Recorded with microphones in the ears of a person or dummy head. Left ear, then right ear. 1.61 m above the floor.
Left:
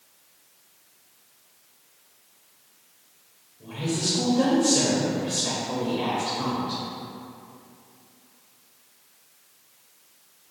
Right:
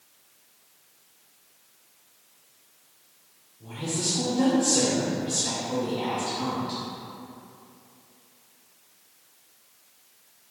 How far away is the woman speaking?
About 0.9 m.